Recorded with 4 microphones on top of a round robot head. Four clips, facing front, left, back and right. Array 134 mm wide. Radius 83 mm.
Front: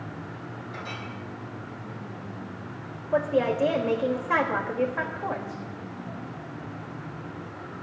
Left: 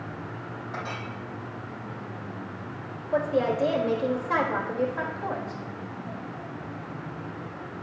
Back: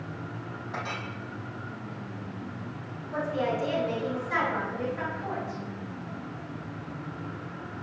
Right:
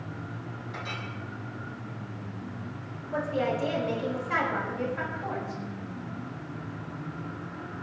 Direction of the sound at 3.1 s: 35° left.